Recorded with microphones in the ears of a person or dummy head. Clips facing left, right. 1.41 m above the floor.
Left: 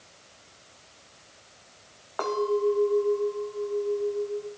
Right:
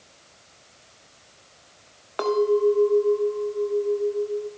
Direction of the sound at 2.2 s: 25° right (ahead or behind).